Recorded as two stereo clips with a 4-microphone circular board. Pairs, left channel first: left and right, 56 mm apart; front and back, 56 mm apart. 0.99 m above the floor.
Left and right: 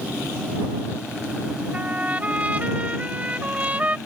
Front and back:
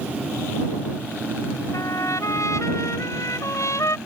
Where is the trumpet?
25° right.